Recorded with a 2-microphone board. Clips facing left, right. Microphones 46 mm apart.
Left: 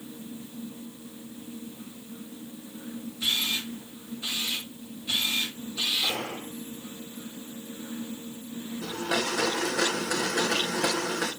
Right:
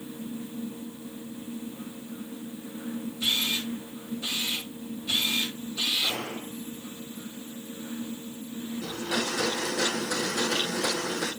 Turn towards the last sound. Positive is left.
turn(degrees=80)